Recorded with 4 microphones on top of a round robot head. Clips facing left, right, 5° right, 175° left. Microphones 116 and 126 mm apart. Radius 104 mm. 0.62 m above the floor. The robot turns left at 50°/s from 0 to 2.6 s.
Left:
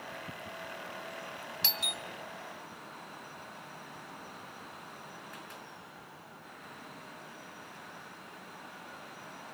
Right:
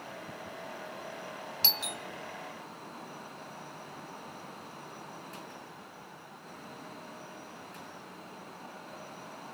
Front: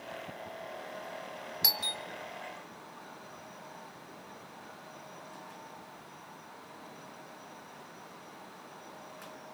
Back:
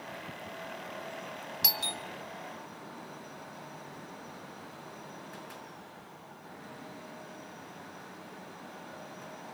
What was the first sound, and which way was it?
A doorbell, 115° right.